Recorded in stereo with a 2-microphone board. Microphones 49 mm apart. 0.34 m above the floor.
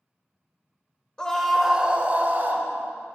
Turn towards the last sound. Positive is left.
turn(degrees=-50)  # may be behind; listen again after turning